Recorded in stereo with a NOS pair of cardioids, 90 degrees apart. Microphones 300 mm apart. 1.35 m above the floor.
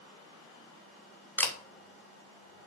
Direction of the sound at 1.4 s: 5° left.